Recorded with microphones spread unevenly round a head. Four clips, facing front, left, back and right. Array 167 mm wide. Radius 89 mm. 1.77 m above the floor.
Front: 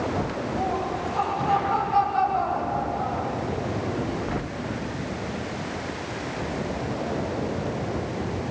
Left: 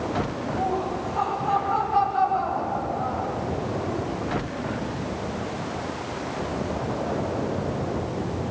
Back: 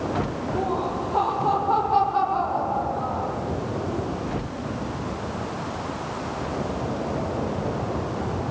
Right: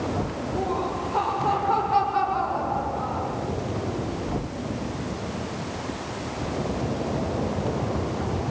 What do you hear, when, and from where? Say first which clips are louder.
0.6 s laughter: even, back 2 dB; 150° right, 8 m